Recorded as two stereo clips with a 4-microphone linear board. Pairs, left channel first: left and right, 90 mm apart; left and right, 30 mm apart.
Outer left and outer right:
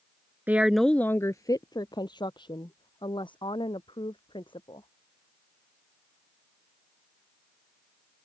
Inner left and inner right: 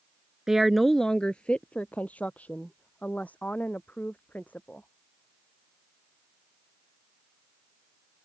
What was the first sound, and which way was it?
A woman speaking, 20° right (ahead or behind).